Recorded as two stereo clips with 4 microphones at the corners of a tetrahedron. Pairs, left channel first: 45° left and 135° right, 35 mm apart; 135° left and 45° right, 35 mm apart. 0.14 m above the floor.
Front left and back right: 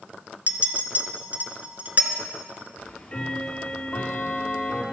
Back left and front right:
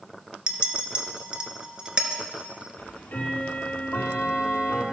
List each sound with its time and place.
0.5 s a clink: 105° right, 1.1 m
2.8 s ticking: 105° left, 1.7 m